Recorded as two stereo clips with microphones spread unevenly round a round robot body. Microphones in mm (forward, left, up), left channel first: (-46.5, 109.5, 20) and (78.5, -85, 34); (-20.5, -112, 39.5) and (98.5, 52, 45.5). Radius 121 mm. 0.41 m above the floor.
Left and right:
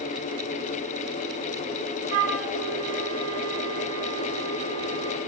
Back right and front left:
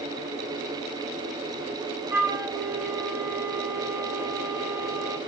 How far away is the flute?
About 1.5 m.